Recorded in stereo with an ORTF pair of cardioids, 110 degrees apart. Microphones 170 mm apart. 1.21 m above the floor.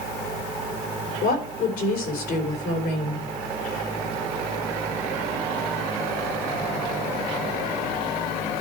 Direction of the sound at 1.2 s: 60° left.